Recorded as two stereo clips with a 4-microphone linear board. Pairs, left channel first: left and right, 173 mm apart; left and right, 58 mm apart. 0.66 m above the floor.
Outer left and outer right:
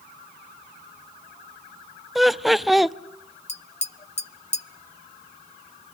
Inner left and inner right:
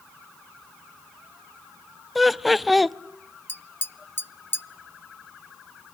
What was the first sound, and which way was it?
Laughter, centre (ahead or behind).